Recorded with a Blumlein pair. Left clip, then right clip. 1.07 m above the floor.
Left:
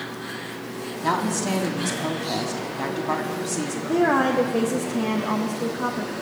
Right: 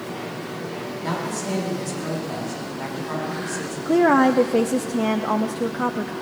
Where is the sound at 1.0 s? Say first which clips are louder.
Left 5 dB; 70° left, 3 m.